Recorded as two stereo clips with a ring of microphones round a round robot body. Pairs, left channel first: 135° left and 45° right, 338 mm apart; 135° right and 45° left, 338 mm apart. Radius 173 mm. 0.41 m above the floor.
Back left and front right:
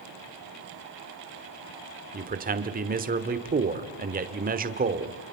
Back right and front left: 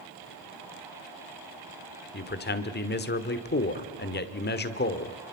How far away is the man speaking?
About 1.3 m.